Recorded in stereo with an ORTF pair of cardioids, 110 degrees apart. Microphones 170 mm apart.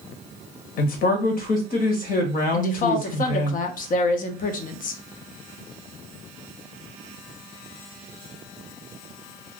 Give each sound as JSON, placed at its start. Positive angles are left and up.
{"t": 0.8, "sound": "a man speaking", "azimuth_deg": 60, "distance_m": 1.1}
{"t": 2.5, "sound": "a woman speaking", "azimuth_deg": 55, "distance_m": 0.6}